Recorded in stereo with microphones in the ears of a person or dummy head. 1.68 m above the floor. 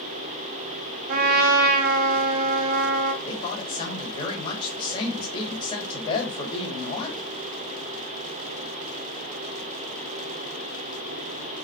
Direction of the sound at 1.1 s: 50° right (ahead or behind).